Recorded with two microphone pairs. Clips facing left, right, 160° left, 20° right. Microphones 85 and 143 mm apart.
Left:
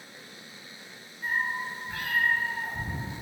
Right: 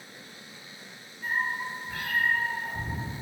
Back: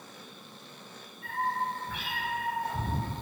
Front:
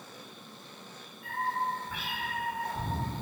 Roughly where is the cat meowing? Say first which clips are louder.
Even, back 1 dB; behind left.